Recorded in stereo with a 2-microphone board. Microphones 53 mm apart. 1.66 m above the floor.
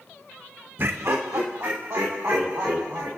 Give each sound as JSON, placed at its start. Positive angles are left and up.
{"t": 0.8, "sound": "laughter", "side_deg": -45, "distance_m": 0.7}